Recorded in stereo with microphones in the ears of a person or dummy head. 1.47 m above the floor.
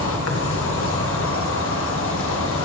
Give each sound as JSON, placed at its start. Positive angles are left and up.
{"t": 0.0, "sound": "an insect", "side_deg": 65, "distance_m": 1.7}